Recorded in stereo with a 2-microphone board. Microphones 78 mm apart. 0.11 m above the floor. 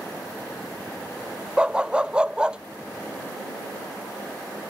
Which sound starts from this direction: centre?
A dog barking, at 1.6 s.